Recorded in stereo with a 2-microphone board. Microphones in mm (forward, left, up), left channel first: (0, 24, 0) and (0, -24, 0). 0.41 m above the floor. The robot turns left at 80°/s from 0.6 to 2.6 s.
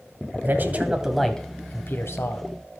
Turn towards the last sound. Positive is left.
turn(degrees=65)